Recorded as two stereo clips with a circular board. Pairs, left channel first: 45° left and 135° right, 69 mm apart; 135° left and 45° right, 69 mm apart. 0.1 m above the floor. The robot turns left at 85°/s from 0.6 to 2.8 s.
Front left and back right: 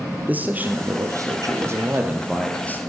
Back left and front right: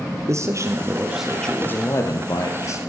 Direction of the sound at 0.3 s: 75° right.